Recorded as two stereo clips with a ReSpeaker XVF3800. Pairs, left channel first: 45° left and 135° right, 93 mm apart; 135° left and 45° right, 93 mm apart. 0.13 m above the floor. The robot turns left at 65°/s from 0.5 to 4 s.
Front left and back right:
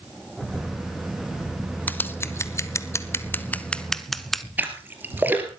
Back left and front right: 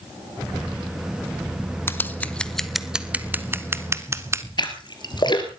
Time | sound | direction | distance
1.9 | scissors | 100° left | 0.7 m
4.6 | a splash | 160° left | 2 m